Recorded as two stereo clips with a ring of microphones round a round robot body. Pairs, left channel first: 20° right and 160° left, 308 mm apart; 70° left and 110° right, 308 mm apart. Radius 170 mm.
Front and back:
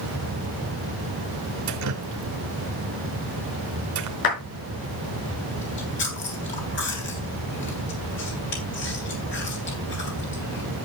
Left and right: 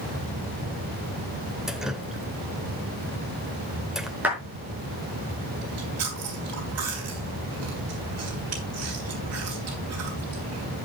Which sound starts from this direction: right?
Chewing, at 5.6 s.